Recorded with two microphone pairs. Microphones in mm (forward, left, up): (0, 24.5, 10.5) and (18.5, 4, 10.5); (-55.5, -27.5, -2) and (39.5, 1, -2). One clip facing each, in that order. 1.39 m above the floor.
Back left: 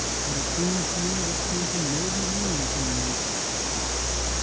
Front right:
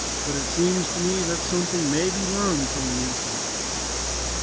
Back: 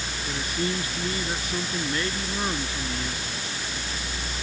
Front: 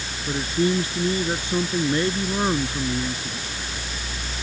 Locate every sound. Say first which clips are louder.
0.3 s a man speaking: front right 6 dB, front 8 dB; 50° right; by 3.5 s 45° right